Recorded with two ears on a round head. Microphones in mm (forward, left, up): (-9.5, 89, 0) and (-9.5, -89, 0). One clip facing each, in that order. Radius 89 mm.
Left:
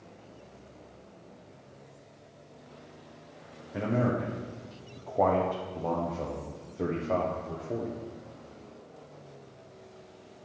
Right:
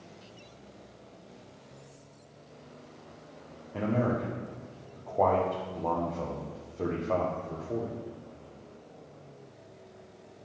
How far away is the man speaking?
About 0.9 m.